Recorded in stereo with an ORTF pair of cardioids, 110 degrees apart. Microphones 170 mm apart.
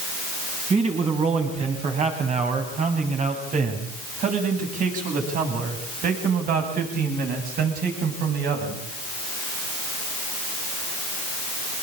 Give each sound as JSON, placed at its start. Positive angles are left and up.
{"t": 0.7, "sound": "a man speaking", "azimuth_deg": -35, "distance_m": 9.0}